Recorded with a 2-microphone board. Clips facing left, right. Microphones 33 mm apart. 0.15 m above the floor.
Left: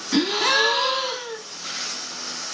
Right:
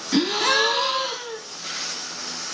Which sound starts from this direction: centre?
A gasp, at 0.1 s.